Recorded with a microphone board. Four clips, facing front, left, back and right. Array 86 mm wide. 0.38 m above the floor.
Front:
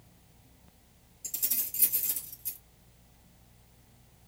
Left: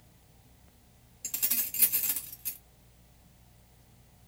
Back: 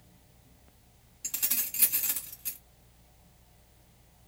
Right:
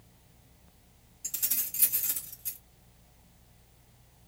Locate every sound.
1.2 s keys jangling: 150° left, 1.8 m